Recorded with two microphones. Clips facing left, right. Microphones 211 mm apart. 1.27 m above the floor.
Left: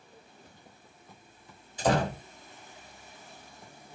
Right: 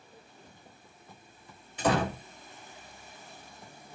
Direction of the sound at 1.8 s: 65° right (ahead or behind).